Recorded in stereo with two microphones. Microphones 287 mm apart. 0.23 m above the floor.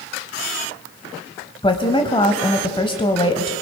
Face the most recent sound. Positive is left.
turn(degrees=20)  # may be behind; listen again after turning